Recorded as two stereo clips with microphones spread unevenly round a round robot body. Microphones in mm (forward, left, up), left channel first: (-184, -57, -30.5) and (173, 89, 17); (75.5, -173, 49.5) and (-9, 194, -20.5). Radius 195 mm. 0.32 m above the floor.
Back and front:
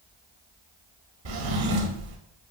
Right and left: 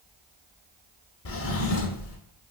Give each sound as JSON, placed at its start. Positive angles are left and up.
{"t": 1.2, "sound": "a drawer", "azimuth_deg": -15, "distance_m": 0.5}